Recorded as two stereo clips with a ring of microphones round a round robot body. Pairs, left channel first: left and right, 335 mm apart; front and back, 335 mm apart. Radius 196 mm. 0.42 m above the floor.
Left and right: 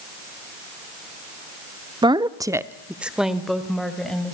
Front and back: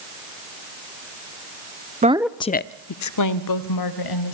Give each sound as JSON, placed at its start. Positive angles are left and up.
{"t": 2.0, "sound": "a woman speaking", "azimuth_deg": -150, "distance_m": 0.9}